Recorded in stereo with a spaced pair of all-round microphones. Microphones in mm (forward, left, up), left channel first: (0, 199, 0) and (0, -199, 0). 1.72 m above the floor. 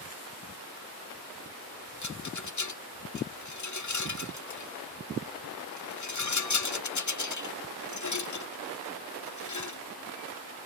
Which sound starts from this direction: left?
A rattle, at 2.0 s.